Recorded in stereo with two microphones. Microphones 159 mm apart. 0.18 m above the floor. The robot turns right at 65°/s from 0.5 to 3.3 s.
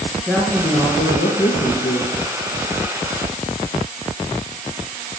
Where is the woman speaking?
10° left, 2.5 m; by 2.1 s 115° left, 2.5 m.